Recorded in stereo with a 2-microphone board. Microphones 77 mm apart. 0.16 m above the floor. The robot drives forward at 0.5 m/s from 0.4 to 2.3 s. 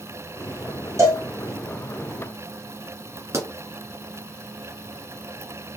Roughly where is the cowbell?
Right.